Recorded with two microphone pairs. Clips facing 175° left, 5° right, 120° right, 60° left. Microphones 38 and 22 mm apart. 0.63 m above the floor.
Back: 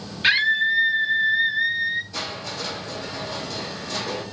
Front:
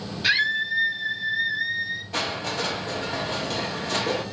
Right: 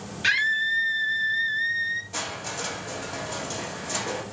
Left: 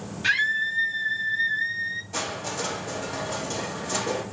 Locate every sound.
0.2 s a scream: 170° right, 1.2 m
2.1 s crushing: 30° right, 1.5 m